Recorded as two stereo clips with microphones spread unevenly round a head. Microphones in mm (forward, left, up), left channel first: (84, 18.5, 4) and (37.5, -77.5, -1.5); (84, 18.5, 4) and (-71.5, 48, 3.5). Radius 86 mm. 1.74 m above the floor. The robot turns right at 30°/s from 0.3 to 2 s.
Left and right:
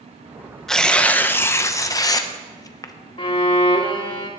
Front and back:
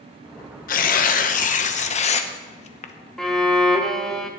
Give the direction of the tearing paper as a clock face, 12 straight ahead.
1 o'clock.